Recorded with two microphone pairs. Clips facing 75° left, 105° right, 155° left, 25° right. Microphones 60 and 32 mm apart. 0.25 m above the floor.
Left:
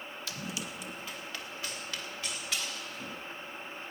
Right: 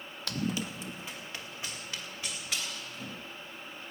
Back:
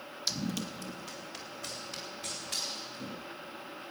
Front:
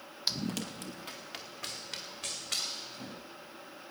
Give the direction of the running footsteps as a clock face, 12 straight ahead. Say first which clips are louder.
Right 8 dB, even; 3 o'clock.